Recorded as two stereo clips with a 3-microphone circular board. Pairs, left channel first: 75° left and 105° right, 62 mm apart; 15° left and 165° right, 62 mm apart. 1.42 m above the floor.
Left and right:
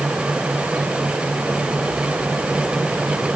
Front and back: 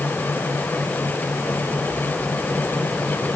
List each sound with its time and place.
Only background noise.